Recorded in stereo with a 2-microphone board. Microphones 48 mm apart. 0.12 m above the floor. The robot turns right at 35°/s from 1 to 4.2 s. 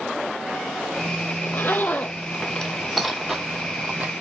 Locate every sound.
1.4 s a zipper: 55° left (ahead or behind), 0.8 m; by 4.1 s 35° right (ahead or behind), 0.8 m